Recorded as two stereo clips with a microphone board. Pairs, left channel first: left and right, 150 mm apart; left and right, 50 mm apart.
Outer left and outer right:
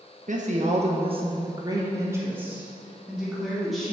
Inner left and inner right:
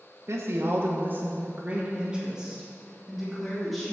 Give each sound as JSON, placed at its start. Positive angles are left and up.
{"t": 0.3, "sound": "a woman speaking", "side_deg": -60, "distance_m": 1.3}